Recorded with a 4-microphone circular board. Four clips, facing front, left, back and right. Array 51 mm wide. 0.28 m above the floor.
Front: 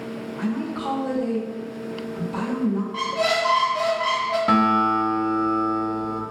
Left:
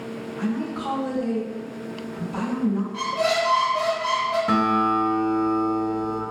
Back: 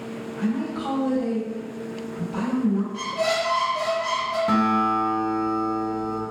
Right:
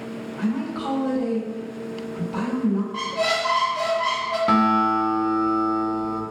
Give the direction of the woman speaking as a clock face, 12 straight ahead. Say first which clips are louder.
Right 1 dB, back 1 dB; 3 o'clock.